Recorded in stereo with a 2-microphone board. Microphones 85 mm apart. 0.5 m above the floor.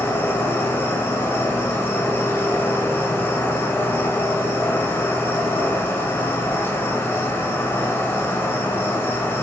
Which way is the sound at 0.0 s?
25° left (ahead or behind).